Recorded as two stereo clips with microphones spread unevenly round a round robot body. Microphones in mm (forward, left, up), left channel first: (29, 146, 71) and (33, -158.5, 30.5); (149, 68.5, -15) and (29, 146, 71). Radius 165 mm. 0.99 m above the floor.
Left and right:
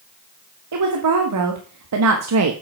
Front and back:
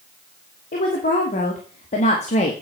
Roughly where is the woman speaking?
Ahead right.